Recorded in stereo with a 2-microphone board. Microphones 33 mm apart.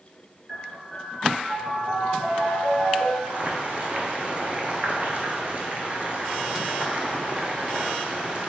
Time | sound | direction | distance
0.5 | a piano | 25° right (ahead or behind) | 1.6 m
3.2 | boiling | 40° right (ahead or behind) | 0.6 m